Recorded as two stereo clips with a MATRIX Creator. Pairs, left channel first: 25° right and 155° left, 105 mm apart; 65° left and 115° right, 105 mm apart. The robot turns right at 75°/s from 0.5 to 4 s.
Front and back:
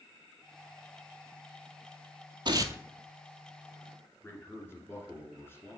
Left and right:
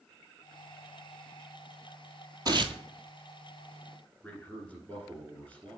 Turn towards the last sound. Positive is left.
turn(degrees=5)